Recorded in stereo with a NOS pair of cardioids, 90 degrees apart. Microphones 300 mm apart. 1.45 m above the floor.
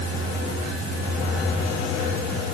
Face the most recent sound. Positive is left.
No sound to turn to.